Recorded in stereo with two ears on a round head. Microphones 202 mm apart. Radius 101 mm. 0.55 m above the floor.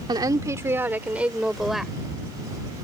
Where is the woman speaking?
20° right (ahead or behind); by 1.9 s centre (ahead or behind).